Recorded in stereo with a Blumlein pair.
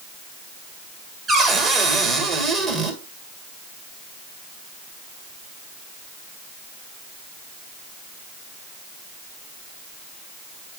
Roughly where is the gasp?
I don't hear a gasp.